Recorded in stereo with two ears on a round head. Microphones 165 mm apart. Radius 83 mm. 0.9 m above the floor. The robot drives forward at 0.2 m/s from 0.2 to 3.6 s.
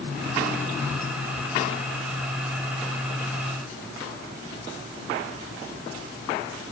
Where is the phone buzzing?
I don't hear a phone buzzing.